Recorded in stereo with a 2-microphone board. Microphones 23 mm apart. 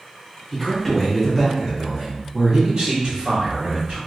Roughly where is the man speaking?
Centre.